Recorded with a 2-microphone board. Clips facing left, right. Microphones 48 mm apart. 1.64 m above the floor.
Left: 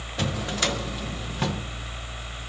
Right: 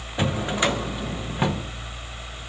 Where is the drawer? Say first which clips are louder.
Right 4 dB; 20° right (ahead or behind), 0.7 m.